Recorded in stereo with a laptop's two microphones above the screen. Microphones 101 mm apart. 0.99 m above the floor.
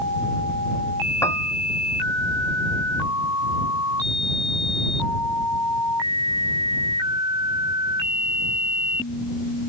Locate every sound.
1.2 s a piano: 25° left (ahead or behind)